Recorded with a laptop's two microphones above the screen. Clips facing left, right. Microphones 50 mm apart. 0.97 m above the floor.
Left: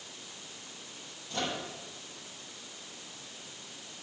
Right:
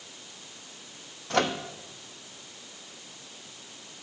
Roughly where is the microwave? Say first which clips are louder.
Right 9 dB; right.